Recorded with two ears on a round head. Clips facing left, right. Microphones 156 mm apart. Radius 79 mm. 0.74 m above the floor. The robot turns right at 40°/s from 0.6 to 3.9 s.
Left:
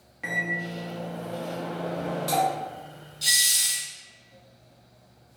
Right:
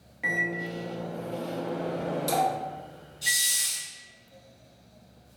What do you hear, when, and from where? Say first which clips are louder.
0.2 s a microwave: right 1 dB; 5° right (ahead or behind), 0.6 m; by 3.7 s 15° right (ahead or behind), 0.6 m
3.2 s a hiss: left 1 dB; 45° left (ahead or behind), 1.6 m; by 3.8 s 50° left (ahead or behind), 1.6 m